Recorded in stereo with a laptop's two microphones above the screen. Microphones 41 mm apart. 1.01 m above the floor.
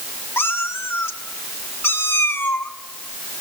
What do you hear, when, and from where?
0.4 s a cat meowing: 80° left, 1.1 m